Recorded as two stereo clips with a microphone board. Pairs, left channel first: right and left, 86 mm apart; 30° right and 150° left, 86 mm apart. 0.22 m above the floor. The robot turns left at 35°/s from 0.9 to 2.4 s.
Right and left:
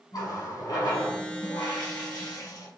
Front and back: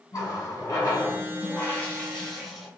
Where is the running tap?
65° right, 1.2 m; by 2.7 s 120° right, 1.2 m.